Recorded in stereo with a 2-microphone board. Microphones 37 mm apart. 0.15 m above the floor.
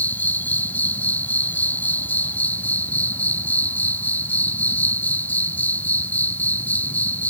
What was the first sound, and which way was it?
An insect, 50° left (ahead or behind).